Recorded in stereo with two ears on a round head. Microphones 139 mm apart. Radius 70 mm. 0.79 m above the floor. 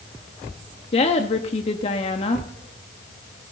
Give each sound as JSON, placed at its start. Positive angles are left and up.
{"t": 0.9, "sound": "a woman speaking", "side_deg": 40, "distance_m": 1.2}